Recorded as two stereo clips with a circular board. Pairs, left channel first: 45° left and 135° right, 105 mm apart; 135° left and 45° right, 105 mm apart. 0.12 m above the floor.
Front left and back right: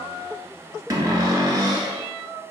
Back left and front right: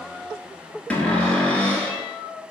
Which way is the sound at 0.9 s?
155° right.